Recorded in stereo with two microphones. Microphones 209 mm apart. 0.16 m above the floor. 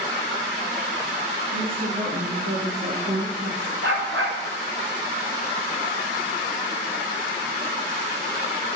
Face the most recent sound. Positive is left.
turn(degrees=-70)  # may be behind; listen again after turning